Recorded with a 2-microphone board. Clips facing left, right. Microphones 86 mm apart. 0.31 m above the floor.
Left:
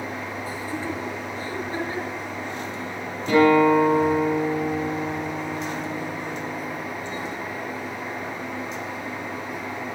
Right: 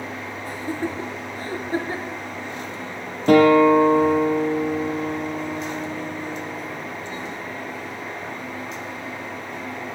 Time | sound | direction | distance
0.5 | laughter | 60° right (ahead or behind) | 5 m
3.3 | a guitar | 55° right (ahead or behind) | 7.5 m